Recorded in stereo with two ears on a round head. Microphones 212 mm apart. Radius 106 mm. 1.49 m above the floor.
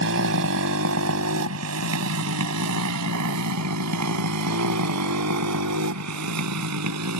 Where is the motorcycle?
55° right (ahead or behind); by 7.2 s 80° right.